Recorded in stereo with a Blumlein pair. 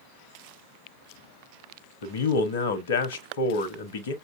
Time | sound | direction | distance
2.0 | a man speaking | 60° left | 0.9 m